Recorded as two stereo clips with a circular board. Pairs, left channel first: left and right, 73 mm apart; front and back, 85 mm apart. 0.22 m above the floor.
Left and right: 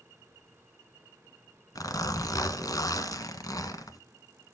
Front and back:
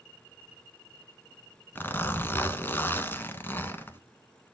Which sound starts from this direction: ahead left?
A zipper, at 1.8 s.